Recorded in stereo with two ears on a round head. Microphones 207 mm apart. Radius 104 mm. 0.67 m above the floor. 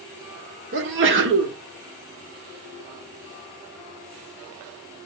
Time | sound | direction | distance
0.7 | a sneeze | 55° right (ahead or behind) | 1.7 m